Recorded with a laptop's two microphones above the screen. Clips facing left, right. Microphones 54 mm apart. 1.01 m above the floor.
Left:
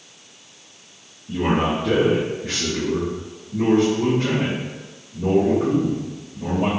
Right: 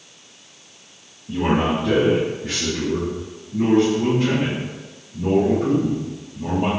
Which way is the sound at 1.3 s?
Centre (ahead or behind).